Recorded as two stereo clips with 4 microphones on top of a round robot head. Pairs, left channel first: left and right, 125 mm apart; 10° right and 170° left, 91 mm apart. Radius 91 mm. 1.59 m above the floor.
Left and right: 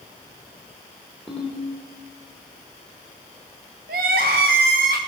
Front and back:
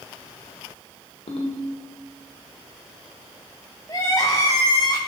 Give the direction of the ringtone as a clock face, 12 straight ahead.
12 o'clock.